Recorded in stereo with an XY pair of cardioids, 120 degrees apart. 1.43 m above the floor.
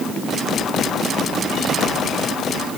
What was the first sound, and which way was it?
Only background noise.